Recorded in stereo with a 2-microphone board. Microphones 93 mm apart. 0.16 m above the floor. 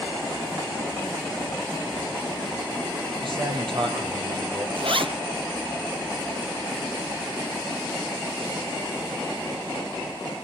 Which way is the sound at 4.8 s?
70° right (ahead or behind).